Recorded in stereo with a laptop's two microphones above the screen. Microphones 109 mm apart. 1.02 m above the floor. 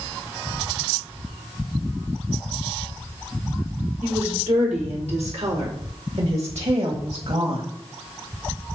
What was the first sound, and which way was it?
A woman speaking, 75° right (ahead or behind).